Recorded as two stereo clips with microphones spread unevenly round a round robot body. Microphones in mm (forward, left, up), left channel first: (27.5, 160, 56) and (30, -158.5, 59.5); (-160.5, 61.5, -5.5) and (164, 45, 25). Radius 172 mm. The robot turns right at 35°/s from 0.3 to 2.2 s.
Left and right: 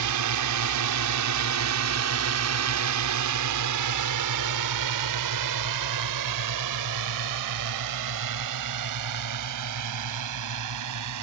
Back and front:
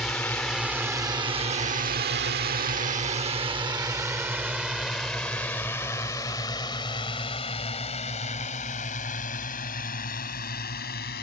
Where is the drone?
95° right; by 11.2 s 120° right.